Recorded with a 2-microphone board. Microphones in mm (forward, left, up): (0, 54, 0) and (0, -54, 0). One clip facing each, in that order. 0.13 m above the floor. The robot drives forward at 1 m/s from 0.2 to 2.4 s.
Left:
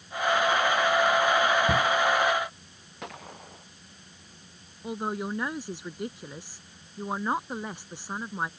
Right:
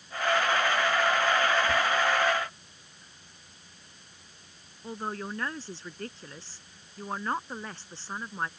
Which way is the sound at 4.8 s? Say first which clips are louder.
Left 4 dB; 15° left (ahead or behind).